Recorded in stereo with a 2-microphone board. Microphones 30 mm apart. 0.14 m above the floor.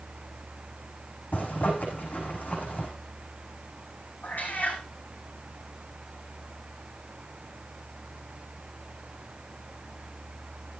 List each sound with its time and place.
1.3 s a zipper: 75° left (ahead or behind), 6.5 m
4.2 s a cat meowing: 80° left, 3 m